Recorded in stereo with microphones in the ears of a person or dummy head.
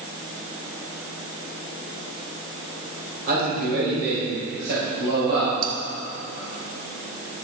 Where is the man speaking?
45° right (ahead or behind), 6 m; by 5.5 s 60° right (ahead or behind), 7 m.